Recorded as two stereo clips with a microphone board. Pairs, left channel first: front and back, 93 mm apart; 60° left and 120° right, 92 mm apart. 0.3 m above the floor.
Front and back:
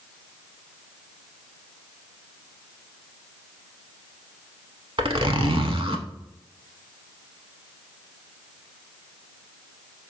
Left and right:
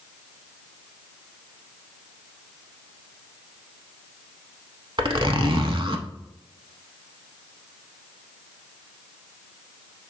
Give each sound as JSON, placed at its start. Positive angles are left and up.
{"t": 5.0, "sound": "a zipper", "azimuth_deg": -155, "distance_m": 0.6}